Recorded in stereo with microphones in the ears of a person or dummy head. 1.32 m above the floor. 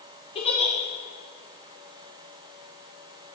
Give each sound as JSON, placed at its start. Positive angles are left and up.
{"t": 0.3, "sound": "a giggle", "side_deg": 25, "distance_m": 1.0}